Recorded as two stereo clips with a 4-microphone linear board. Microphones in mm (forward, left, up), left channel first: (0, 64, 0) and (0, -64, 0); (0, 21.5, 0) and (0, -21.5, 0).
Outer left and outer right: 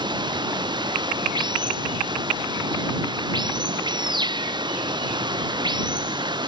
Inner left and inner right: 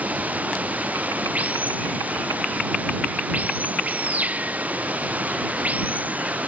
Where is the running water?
35° right (ahead or behind).